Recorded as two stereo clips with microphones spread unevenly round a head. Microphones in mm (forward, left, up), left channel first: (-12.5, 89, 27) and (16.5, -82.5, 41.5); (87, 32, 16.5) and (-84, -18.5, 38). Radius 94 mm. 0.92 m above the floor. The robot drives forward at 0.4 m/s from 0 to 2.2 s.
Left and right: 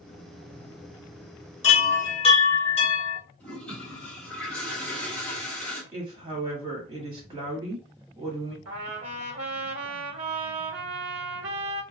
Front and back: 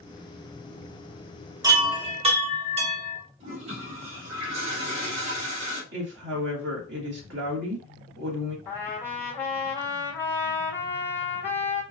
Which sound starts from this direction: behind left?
A chime, at 1.6 s.